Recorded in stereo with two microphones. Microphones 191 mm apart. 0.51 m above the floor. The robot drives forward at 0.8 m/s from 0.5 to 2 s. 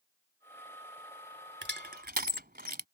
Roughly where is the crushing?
Right.